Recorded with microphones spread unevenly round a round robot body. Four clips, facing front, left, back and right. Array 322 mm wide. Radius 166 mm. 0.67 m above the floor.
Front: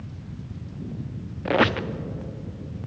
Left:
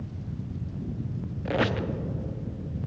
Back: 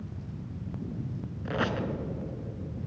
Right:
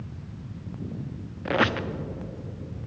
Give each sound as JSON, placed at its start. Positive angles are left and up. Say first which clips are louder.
{"t": 1.4, "sound": "a squeak", "louder": "right 2 dB, front 9 dB", "azimuth_deg": -30, "distance_m": 0.6}